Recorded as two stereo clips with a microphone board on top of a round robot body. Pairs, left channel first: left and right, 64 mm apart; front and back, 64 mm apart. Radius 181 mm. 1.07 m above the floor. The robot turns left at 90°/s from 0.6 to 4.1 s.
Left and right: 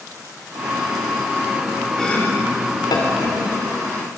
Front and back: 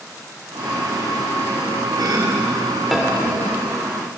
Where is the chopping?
175° left, 2.5 m; by 3.4 s 45° left, 2.5 m.